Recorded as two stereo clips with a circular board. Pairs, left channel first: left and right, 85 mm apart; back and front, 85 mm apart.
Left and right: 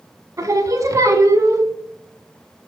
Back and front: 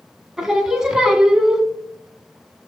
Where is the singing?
75° right, 0.8 m.